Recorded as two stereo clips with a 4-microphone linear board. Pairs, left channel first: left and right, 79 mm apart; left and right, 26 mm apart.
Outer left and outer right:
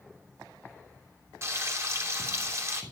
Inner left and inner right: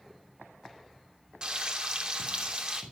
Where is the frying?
35° right (ahead or behind), 3 m.